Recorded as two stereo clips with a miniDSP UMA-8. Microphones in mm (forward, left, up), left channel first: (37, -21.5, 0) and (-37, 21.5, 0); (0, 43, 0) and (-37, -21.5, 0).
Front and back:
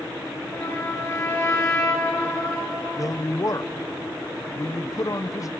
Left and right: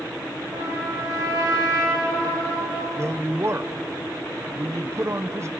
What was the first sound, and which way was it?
A trumpet, 85° right.